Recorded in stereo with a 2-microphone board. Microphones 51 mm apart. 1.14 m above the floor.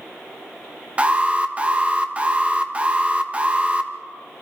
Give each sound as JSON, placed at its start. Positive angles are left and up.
{"t": 1.0, "sound": "an alarm", "side_deg": -25, "distance_m": 1.4}